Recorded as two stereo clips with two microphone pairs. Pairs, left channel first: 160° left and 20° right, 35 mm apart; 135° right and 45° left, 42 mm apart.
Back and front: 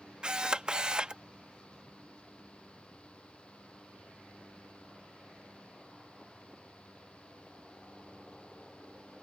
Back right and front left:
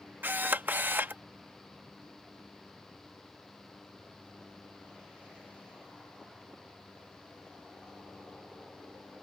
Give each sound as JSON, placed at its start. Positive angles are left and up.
{"t": 0.2, "sound": "a camera shutter", "azimuth_deg": 35}